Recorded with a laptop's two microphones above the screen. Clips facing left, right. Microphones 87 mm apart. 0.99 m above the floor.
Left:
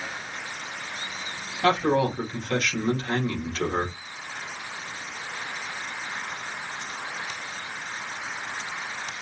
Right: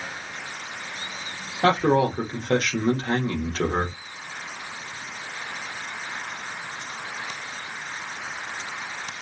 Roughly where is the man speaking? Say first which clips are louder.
Right 2 dB; right.